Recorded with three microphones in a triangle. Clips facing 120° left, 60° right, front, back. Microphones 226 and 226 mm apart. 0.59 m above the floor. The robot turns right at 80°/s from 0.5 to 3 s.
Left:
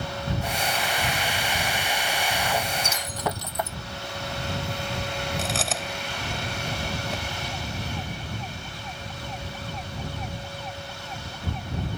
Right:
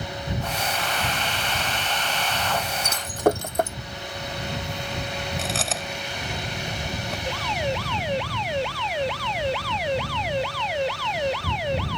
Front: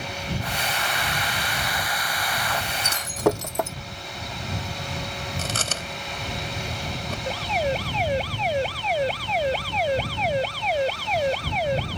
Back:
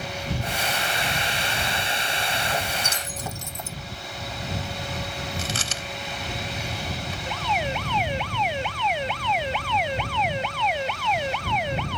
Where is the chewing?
30° left.